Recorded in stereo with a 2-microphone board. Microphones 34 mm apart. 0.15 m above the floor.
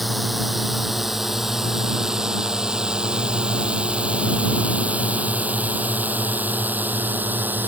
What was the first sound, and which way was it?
A drone, centre (ahead or behind).